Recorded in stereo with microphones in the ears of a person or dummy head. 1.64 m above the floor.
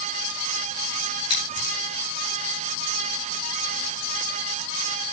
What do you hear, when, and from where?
1.3 s scissors: 20° left (ahead or behind), 10 m